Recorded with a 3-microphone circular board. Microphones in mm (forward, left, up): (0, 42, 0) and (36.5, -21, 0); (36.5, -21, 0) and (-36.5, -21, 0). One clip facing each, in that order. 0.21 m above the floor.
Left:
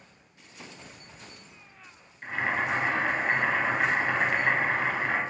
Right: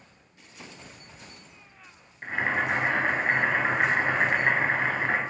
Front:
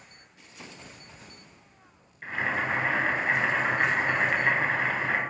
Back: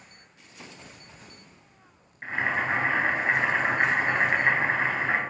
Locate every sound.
2.2 s boiling: 120° right, 0.8 m